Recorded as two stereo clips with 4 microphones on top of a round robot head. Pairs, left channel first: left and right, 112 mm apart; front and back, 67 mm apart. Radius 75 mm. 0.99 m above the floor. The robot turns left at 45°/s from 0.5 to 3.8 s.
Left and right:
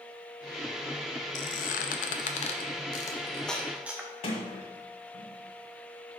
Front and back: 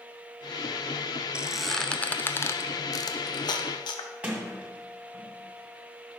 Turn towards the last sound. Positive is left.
turn(degrees=115)